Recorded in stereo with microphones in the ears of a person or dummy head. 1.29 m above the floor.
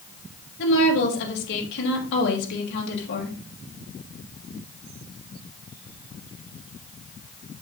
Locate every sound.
0.6 s a woman speaking: 65° left (ahead or behind), 3 m